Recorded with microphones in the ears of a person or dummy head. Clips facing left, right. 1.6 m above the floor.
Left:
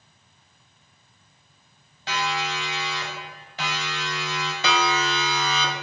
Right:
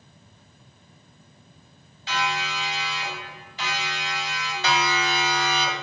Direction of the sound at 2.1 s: 45° left (ahead or behind).